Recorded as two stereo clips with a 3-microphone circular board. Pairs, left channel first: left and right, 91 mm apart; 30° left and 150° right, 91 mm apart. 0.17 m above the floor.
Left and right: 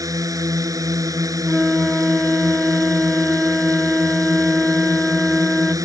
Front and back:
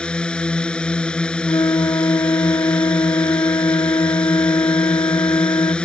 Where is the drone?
45° right.